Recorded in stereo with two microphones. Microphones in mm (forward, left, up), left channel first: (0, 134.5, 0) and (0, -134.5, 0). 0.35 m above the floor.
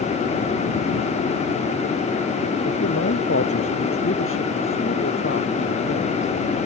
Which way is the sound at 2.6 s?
55° left (ahead or behind).